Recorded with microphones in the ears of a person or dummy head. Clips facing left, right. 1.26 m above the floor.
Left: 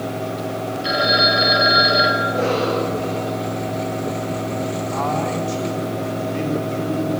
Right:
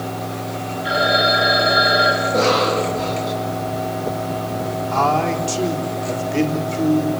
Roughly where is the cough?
Right.